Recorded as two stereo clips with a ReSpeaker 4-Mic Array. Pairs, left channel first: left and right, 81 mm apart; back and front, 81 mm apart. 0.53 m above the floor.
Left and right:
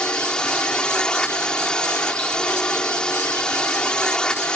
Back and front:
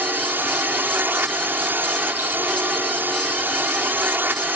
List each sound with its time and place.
0.0 s a drone: 25° left